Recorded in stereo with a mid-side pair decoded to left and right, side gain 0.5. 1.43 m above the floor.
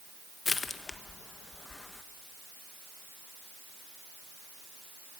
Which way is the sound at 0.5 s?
30° left.